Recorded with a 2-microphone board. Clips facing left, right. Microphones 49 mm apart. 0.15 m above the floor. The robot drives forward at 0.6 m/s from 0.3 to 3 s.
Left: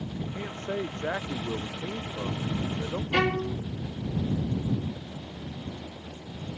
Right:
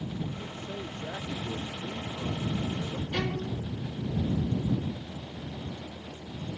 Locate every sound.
0.3 s a man speaking: 65° left (ahead or behind); by 3.0 s 55° left (ahead or behind)
3.1 s a violin: 55° left (ahead or behind)